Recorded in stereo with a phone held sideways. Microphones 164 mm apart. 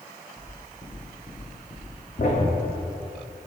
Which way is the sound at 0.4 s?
Centre (ahead or behind).